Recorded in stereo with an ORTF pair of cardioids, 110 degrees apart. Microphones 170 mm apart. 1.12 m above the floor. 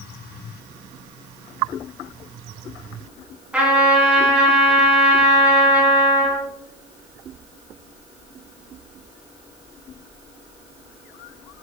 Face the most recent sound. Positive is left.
turn(degrees=-10)